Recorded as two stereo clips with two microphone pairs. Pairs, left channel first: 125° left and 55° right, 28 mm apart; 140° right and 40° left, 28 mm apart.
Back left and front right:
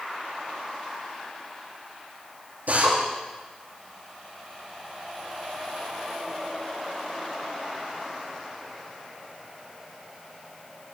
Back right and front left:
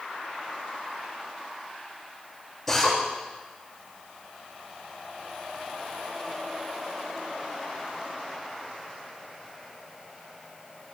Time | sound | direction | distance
2.7 | a drill | 60° right | 9 m